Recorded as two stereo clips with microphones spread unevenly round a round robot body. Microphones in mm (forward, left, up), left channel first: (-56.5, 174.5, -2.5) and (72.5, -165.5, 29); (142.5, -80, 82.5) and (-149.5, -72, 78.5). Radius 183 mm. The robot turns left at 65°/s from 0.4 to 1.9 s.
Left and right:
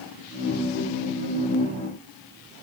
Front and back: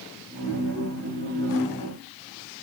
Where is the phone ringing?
No phone ringing in this recording.